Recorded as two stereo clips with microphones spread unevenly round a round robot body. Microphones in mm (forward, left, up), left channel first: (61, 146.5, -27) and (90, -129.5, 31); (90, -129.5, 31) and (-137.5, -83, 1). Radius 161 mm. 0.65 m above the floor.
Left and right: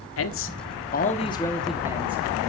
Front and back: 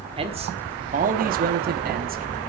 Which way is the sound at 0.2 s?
105° left.